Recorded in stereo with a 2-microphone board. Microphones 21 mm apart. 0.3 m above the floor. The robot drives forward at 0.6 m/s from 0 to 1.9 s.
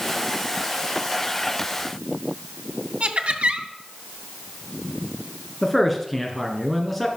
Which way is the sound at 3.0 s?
60° right (ahead or behind).